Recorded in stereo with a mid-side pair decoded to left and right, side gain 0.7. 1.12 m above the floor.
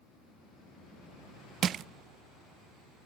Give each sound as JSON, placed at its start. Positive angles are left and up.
{"t": 1.6, "sound": "crushing", "azimuth_deg": -40, "distance_m": 0.6}